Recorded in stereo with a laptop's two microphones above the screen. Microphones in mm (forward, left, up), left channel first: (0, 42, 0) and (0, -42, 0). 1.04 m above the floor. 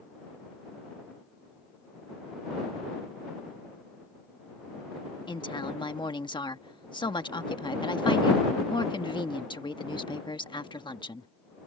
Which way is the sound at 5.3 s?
80° left.